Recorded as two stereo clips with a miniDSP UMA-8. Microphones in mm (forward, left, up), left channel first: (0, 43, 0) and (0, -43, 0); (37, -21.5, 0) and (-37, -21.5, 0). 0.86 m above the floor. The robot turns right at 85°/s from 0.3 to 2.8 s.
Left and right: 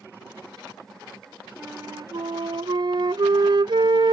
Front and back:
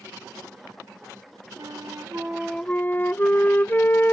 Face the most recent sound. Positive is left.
turn(degrees=-60)